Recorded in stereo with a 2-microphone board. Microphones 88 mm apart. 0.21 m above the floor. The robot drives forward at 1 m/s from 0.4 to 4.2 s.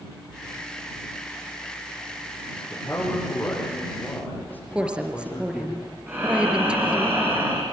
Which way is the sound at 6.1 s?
25° right (ahead or behind).